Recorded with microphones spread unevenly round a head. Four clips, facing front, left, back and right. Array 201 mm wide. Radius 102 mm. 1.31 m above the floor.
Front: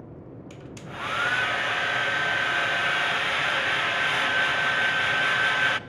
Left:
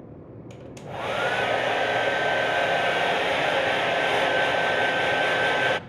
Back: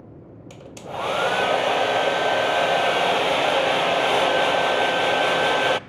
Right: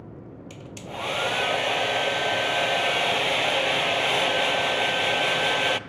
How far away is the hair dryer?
About 0.7 m.